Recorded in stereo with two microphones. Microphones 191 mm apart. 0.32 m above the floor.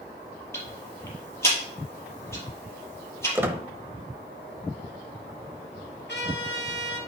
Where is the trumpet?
75° left (ahead or behind), 3.5 m.